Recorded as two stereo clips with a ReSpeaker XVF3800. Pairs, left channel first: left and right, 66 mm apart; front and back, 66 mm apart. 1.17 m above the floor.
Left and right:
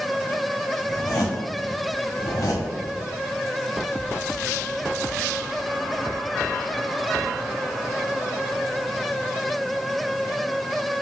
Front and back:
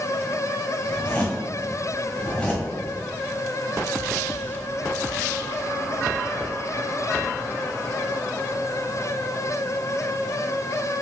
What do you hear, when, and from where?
0.9 s a zipper: 70° left, 1.6 m